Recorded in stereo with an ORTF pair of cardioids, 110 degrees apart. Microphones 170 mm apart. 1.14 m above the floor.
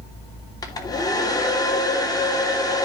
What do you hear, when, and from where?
0.6 s a hair dryer: 20° left, 3 m